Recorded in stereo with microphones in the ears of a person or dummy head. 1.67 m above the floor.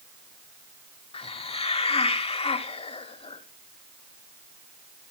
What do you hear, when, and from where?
1.1 s a hiss: 30° left (ahead or behind), 0.8 m